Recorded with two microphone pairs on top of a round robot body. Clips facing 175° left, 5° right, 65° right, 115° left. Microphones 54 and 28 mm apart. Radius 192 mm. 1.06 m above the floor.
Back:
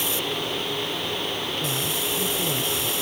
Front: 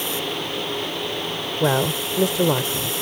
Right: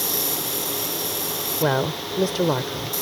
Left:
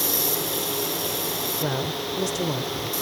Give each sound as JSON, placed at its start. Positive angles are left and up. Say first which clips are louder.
{"t": 1.6, "sound": "a woman speaking", "louder": "front 7 dB, right 8 dB", "azimuth_deg": -15}